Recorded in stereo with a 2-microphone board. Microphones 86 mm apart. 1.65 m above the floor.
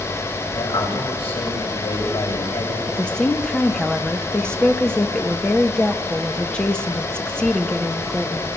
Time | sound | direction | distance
0.6 | a man speaking | 85° left | 7.5 m
2.9 | a woman speaking | 10° left (ahead or behind) | 1.7 m